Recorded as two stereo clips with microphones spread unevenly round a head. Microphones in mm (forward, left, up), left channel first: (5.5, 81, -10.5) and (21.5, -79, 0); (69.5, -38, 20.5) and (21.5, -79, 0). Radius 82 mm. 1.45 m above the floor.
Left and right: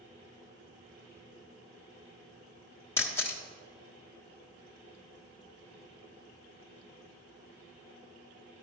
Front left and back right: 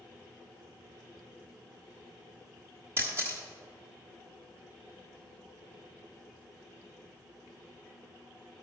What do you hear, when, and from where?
3.0 s a camera shutter: 160° left, 1.1 m